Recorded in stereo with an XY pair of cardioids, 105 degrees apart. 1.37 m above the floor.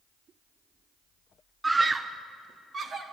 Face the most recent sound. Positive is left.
turn(degrees=-40)